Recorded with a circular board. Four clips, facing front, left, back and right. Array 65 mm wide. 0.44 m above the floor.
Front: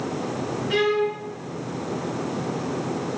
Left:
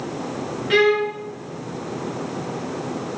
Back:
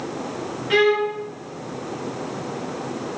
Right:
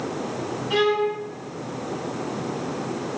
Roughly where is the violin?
Behind left.